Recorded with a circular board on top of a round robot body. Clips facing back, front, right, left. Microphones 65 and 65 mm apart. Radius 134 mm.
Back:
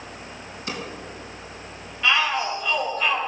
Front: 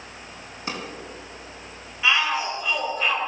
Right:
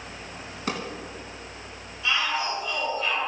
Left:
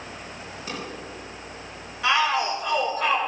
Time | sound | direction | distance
0.7 | a drawer | 60° right | 3 m
2.0 | a shout | 80° left | 3.5 m